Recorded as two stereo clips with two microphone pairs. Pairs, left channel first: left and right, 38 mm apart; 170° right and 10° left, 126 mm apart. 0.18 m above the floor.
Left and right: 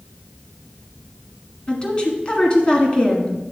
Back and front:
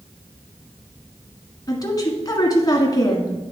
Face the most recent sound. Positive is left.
turn(degrees=140)